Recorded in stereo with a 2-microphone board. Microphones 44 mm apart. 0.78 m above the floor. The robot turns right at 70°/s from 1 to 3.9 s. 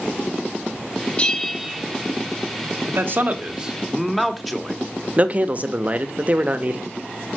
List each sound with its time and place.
1.2 s a bell: 155° left, 1.0 m; by 1.8 s 160° right, 1.0 m
2.9 s a man speaking: 70° right, 1.1 m; by 4.8 s 5° left, 1.1 m
5.2 s a man speaking: 35° right (ahead or behind), 0.8 m